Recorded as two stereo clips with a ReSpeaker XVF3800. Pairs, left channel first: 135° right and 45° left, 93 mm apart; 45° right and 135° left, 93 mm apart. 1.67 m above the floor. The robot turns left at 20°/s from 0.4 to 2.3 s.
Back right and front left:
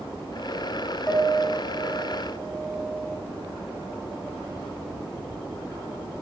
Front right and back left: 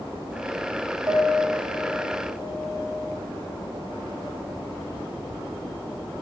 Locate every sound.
1.1 s a piano: 145° left, 0.6 m; by 3.1 s 120° left, 0.6 m